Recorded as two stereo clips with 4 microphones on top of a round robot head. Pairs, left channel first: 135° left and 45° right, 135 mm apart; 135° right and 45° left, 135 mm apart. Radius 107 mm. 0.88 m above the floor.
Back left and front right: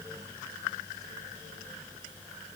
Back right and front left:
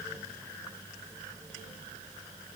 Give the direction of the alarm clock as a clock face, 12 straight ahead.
No alarm clock in this recording.